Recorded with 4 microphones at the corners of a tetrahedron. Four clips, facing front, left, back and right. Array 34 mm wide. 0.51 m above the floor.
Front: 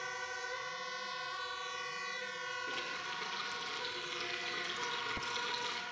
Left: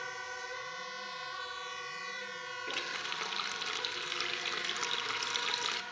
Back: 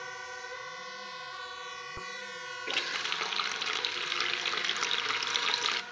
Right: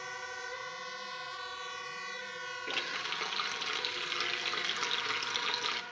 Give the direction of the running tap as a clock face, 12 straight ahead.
6 o'clock.